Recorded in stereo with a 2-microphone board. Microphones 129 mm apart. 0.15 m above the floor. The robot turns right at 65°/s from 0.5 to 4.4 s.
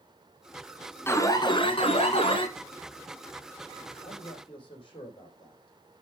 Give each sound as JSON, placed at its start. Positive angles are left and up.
{"t": 1.1, "sound": "an alarm", "azimuth_deg": 25, "distance_m": 1.7}
{"t": 4.0, "sound": "a man speaking", "side_deg": 65, "distance_m": 5.0}